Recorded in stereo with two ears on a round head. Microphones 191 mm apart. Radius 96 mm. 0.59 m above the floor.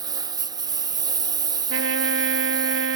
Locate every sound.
0.0 s a lawn mower: 20° right (ahead or behind)
1.7 s a trumpet: 65° right (ahead or behind)